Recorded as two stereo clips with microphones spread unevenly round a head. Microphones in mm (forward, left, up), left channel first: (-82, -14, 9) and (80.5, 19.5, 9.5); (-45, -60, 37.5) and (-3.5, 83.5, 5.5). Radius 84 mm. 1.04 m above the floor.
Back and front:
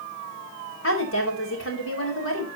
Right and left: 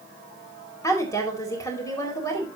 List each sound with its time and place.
0.8 s a woman speaking: 175° right, 4 m